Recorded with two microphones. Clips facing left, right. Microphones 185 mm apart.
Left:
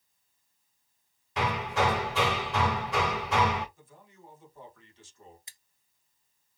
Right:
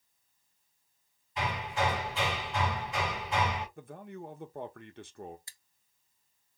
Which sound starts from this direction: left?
Hammering, at 1.4 s.